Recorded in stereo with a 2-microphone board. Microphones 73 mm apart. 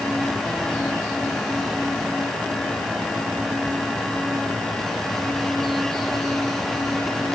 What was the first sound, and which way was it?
Only background noise.